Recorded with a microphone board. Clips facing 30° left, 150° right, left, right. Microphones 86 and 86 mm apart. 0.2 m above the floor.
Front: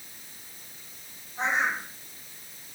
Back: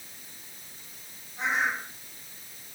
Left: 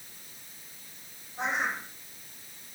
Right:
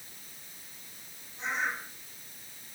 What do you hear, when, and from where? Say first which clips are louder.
1.4 s a bird: front 1 dB, left 2 dB; 90° left, 7 m